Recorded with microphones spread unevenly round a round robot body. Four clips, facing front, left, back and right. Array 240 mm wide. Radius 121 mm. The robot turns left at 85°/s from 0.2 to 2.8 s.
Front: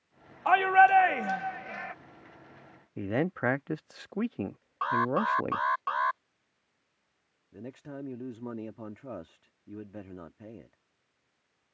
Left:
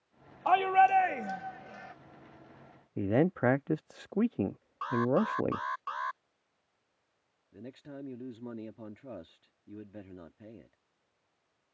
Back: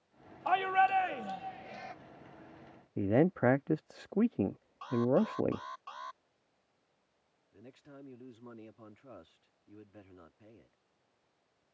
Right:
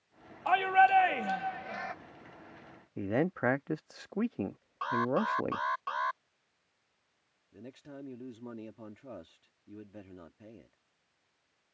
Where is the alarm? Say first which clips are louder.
Left 2 dB, front 2 dB; 15° right.